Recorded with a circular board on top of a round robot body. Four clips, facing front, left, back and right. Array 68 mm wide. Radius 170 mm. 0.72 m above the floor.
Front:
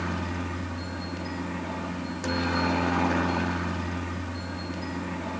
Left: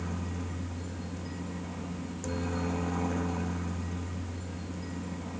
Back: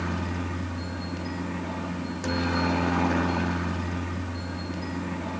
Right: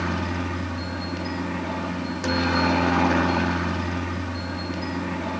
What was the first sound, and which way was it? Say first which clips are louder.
A helicopter: right 11 dB, even; 85° right.